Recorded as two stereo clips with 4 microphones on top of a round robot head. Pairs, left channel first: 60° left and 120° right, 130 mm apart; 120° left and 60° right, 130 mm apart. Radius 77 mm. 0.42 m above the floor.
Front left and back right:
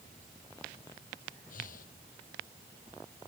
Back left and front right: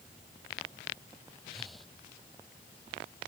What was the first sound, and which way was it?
Breathing, 30° left.